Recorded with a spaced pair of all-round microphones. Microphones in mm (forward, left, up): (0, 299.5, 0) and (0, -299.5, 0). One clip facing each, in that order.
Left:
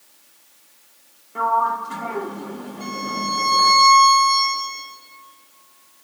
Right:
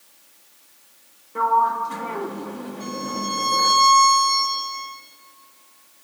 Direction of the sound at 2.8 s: 45° right (ahead or behind).